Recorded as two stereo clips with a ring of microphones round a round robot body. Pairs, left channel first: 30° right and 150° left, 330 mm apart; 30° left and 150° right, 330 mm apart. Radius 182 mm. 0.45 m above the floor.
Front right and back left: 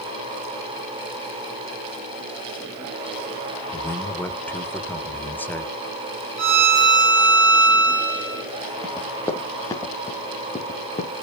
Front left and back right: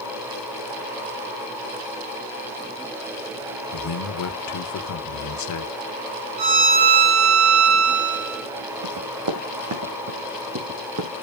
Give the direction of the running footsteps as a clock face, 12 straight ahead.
4 o'clock.